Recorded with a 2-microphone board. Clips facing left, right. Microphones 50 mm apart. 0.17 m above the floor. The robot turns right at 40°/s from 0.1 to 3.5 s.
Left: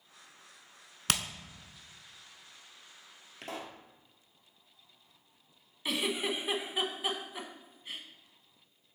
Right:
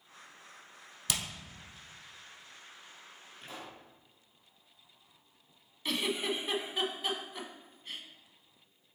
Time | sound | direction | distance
1.1 | hammering | 55° left (ahead or behind) | 0.8 m
3.4 | a pop | 70° left (ahead or behind) | 1.4 m
5.8 | a giggle | 10° left (ahead or behind) | 1.0 m